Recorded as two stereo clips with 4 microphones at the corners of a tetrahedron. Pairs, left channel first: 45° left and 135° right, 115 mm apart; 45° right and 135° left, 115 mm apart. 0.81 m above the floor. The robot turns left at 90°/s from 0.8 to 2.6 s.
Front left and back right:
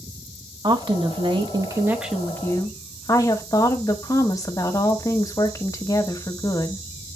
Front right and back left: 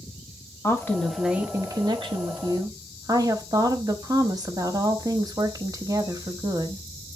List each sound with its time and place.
0.6 s a woman speaking: 100° right, 1.0 m; by 6.8 s 95° left, 1.0 m